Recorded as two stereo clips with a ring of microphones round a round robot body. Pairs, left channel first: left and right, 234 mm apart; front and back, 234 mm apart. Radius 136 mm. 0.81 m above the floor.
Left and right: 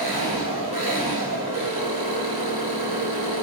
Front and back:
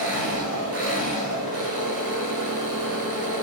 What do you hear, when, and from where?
0.0 s an engine running: 155° right, 6 m